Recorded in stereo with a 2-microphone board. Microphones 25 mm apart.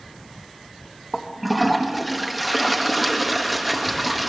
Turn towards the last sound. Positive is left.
turn(degrees=-5)  # may be behind; listen again after turning